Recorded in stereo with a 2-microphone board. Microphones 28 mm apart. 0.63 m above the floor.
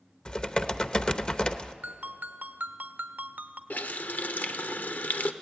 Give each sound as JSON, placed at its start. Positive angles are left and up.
{"t": 0.2, "sound": "typing on a keyboard", "side_deg": 30, "distance_m": 0.8}
{"t": 1.8, "sound": "a ringtone", "side_deg": -75, "distance_m": 1.1}
{"t": 3.7, "sound": "a running tap", "side_deg": 70, "distance_m": 1.0}